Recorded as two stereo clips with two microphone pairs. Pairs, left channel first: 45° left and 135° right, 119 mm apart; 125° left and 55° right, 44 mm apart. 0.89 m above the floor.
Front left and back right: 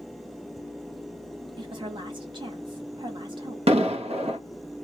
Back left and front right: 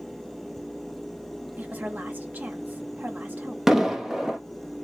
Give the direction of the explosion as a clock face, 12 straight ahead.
5 o'clock.